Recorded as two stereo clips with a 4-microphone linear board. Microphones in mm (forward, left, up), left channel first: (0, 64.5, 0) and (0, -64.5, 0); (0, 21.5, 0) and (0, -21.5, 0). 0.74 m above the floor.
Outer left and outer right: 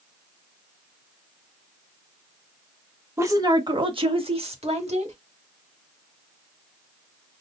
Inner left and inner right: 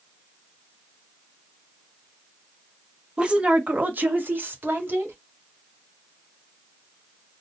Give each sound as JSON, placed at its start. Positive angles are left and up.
{"t": 3.2, "sound": "a woman speaking", "side_deg": -20, "distance_m": 0.8}